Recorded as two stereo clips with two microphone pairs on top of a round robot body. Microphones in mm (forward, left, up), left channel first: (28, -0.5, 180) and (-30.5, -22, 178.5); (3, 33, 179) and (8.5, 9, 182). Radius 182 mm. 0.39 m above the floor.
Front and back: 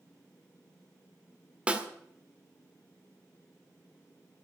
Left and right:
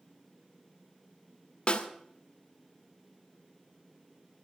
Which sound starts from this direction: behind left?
A snare drum, at 1.7 s.